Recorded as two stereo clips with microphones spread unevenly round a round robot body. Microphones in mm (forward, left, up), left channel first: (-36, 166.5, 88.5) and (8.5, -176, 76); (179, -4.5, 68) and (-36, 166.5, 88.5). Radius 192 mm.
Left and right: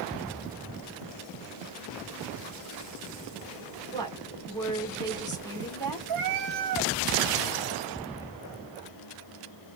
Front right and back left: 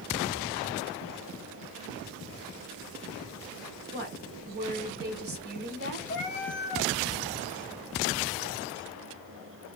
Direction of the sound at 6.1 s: 100° right.